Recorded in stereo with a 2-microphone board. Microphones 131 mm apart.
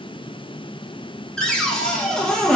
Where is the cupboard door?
5° left (ahead or behind), 0.6 m.